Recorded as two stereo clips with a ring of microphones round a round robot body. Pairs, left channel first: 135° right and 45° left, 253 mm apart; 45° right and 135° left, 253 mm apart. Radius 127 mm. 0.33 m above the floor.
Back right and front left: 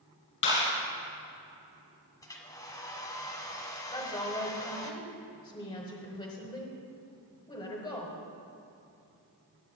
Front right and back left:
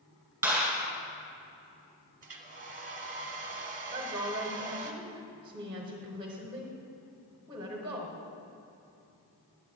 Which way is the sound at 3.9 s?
Straight behind.